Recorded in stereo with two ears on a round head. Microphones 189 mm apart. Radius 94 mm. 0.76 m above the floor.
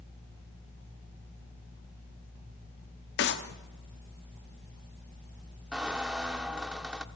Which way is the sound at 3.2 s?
55° left (ahead or behind).